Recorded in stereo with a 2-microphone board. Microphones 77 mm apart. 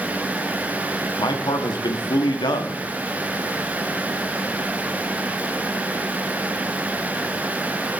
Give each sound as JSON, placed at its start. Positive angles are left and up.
{"t": 1.2, "sound": "a man speaking", "side_deg": 75, "distance_m": 0.7}